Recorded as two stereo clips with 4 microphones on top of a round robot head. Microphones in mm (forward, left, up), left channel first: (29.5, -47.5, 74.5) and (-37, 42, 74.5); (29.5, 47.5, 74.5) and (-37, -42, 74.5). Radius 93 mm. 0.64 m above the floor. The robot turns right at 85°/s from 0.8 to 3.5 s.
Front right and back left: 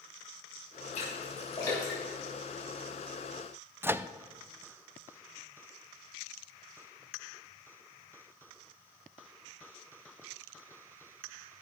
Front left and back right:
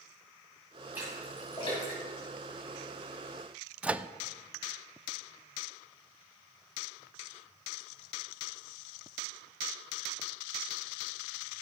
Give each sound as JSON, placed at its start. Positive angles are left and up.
{"t": 0.9, "sound": "a splash", "azimuth_deg": -55, "distance_m": 4.5}
{"t": 3.8, "sound": "a microwave", "azimuth_deg": 170, "distance_m": 0.5}